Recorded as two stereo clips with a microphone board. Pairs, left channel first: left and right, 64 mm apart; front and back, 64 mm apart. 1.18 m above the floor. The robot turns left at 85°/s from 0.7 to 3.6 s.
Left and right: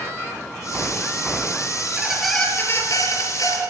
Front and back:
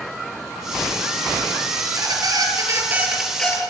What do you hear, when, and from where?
1.8 s a squeak: 150° right, 5 m; by 3.6 s 65° left, 5 m